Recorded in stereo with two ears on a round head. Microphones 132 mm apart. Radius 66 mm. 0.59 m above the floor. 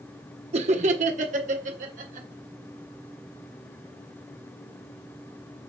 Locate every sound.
0.5 s laughter: 45° right (ahead or behind), 1.0 m; by 2.3 s 55° right (ahead or behind), 2.5 m